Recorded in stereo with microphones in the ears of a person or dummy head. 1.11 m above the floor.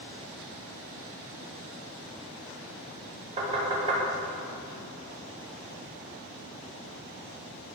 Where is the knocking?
35° right (ahead or behind), 2.5 m.